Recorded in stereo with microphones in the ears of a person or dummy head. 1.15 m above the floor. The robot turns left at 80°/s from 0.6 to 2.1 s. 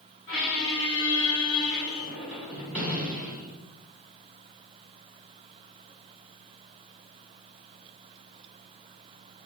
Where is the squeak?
110° left, 1.3 m; by 3.7 s 10° right, 1.3 m.